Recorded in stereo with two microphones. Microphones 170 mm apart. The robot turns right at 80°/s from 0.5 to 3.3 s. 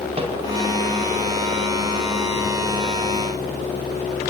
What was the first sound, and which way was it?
A microwave, 35° right (ahead or behind).